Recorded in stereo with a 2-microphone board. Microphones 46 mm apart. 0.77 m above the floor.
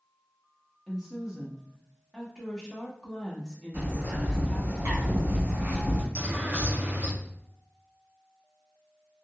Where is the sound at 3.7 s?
65° right (ahead or behind), 1.4 m.